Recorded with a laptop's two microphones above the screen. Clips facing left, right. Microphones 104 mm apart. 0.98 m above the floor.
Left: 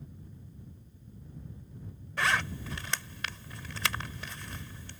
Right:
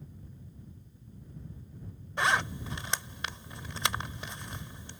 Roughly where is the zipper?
Right.